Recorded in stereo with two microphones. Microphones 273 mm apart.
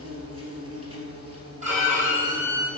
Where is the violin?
25° right (ahead or behind), 3 m.